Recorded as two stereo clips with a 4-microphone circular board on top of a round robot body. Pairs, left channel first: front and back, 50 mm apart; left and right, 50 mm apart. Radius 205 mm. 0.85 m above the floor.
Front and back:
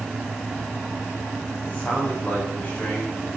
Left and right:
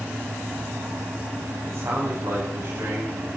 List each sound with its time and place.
1.6 s a man speaking: 65° right, 4.5 m